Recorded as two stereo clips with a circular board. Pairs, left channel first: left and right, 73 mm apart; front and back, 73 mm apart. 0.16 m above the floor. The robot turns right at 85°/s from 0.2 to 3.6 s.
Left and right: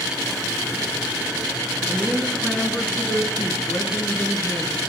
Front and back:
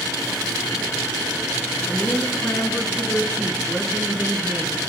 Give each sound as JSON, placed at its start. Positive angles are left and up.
{"t": 1.9, "sound": "a woman speaking", "azimuth_deg": -40, "distance_m": 1.3}